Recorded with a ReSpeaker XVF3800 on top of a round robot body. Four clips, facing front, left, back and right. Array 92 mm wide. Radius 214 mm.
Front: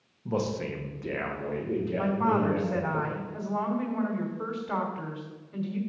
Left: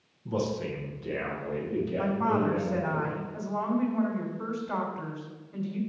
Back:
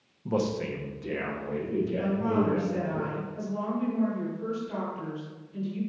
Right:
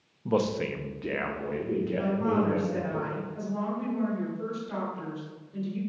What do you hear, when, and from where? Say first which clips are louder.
0.2 s a man speaking: right 4 dB, back 2 dB; 95° right, 1.3 m; by 3.0 s 50° right, 4.5 m
2.0 s a woman speaking: left 1 dB, front 3 dB; 25° left, 2.5 m